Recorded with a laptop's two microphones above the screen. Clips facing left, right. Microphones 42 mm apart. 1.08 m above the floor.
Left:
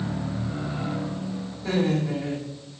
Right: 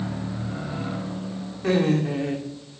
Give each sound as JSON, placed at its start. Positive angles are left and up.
{"t": 1.6, "sound": "laughter", "side_deg": -75, "distance_m": 2.5}